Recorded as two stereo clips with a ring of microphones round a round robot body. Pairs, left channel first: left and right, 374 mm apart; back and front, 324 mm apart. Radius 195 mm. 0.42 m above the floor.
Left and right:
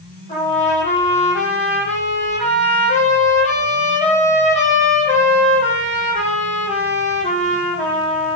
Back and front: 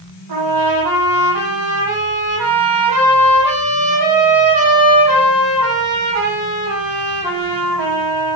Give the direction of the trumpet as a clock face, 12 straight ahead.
11 o'clock.